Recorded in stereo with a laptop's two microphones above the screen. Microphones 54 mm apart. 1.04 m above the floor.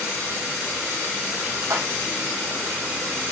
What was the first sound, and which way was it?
A splash, 70° right (ahead or behind).